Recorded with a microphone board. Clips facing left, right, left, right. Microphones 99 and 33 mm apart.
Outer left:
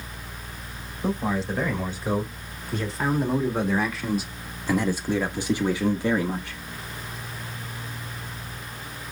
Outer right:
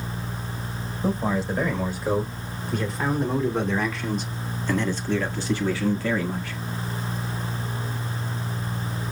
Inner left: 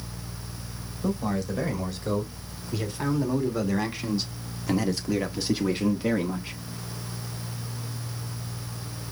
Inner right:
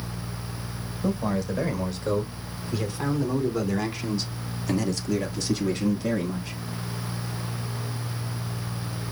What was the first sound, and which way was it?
A man speaking, 5° right (ahead or behind).